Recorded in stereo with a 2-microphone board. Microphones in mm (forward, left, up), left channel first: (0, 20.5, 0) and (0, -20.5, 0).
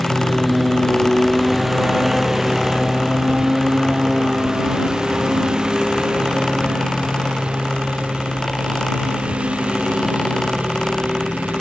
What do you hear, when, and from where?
0.0 s a lawn mower: 5° right (ahead or behind); by 11.6 s 30° right (ahead or behind)